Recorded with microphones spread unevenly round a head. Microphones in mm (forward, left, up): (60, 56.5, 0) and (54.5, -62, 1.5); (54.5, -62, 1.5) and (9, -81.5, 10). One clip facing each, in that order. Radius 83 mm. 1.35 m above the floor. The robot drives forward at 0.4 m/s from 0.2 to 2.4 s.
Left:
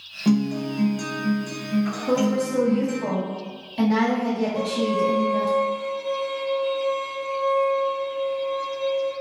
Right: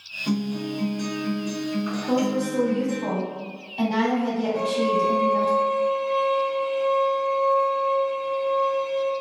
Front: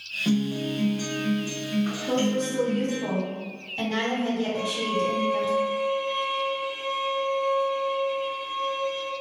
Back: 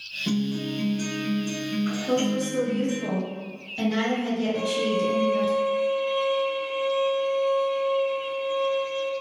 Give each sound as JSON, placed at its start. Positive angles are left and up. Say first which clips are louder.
{"t": 0.2, "sound": "a guitar", "louder": "left 5 dB, front 1 dB", "azimuth_deg": 75, "distance_m": 0.9}
{"t": 2.1, "sound": "a woman speaking", "louder": "even, back 1 dB", "azimuth_deg": 120, "distance_m": 1.2}
{"t": 4.5, "sound": "a violin", "louder": "right 1 dB, back 2 dB", "azimuth_deg": -140, "distance_m": 1.6}